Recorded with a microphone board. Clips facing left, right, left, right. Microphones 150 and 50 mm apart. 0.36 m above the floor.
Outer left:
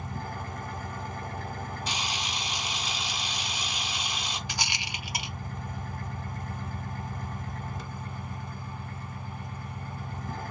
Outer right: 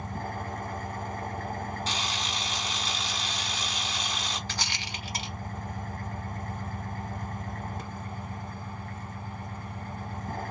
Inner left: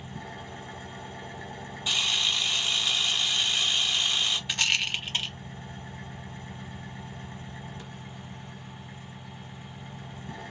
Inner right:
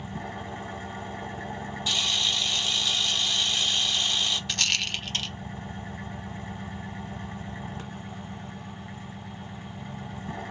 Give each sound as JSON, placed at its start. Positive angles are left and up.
{"t": 0.0, "sound": "an engine running", "side_deg": -55, "distance_m": 1.3}
{"t": 1.9, "sound": "a camera shutter", "side_deg": 15, "distance_m": 1.3}
{"t": 4.5, "sound": "a rattle", "side_deg": 15, "distance_m": 0.5}